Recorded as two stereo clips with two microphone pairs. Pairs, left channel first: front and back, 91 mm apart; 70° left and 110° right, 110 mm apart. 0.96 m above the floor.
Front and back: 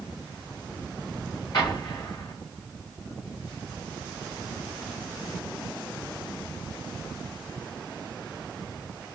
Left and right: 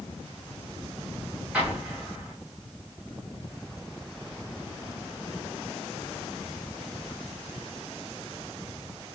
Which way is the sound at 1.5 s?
35° right.